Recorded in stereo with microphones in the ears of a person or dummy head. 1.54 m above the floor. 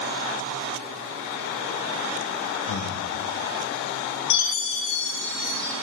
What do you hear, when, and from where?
2.7 s breathing: 70° left (ahead or behind), 1.0 m
4.3 s a chime: 60° left (ahead or behind), 1.5 m